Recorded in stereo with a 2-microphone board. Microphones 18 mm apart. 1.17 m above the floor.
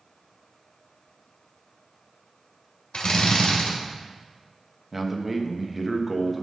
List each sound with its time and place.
2.9 s a drill: 70° left (ahead or behind), 2.0 m
4.9 s a man speaking: 10° right (ahead or behind), 1.1 m